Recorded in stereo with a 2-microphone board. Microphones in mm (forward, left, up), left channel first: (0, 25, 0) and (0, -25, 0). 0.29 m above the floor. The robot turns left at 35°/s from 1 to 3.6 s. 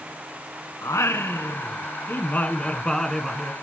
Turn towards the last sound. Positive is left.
turn(degrees=-10)